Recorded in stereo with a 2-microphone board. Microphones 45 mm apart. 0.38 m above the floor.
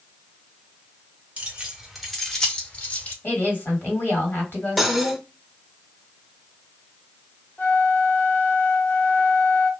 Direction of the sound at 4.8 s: Centre (ahead or behind).